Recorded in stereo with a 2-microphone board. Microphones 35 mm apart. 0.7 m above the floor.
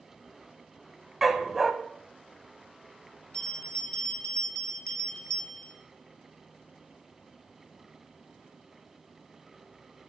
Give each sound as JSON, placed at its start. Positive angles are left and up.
{"t": 1.2, "sound": "a dog barking", "side_deg": -5, "distance_m": 0.9}
{"t": 3.3, "sound": "a bell", "side_deg": 25, "distance_m": 1.2}